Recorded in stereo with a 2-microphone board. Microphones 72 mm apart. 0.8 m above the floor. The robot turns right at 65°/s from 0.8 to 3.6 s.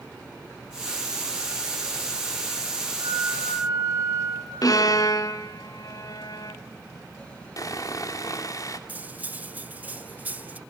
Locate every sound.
3.0 s a flute: 90° right, 9.5 m; by 4.5 s 55° right, 9.5 m
4.6 s a violin: 55° left (ahead or behind), 1.4 m
7.6 s sawing: 50° left (ahead or behind), 1.9 m
8.9 s cutlery clinking: 25° right (ahead or behind), 0.9 m